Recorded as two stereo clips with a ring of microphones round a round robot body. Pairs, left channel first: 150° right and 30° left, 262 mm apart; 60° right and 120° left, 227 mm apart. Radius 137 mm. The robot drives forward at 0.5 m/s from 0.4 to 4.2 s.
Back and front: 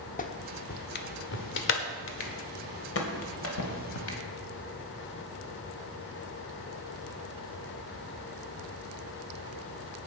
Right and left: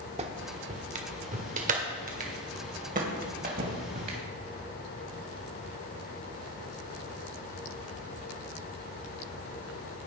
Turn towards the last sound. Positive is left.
turn(degrees=175)